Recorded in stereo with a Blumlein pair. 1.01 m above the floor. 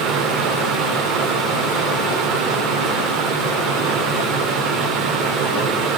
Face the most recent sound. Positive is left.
turn(degrees=-30)